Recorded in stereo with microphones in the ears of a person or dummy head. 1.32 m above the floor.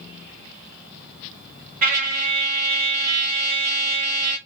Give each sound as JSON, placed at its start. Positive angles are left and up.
{"t": 1.8, "sound": "a trumpet", "side_deg": -45, "distance_m": 1.4}